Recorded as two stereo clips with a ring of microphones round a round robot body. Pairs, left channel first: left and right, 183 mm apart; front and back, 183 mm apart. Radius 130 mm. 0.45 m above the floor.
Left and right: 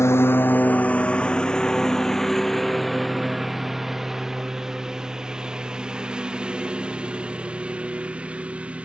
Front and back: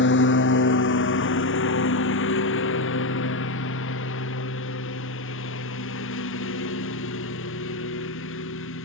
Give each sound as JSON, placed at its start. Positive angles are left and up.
{"t": 0.0, "sound": "a lawn mower", "azimuth_deg": 15}